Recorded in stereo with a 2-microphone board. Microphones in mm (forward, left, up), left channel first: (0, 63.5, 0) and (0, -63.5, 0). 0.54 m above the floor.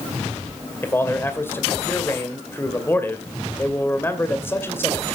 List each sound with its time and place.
0.8 s a man speaking: 20° left (ahead or behind), 2 m